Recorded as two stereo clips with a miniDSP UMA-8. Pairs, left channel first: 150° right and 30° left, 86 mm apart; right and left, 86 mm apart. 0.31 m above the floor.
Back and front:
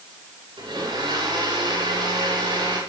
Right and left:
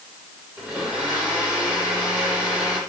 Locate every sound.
0.6 s a blender: 20° left, 8.5 m